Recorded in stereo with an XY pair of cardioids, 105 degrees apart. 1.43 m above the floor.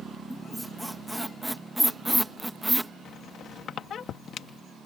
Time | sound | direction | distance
0.3 | a squeak | straight ahead | ?
3.0 | a squeak | 65° left | ?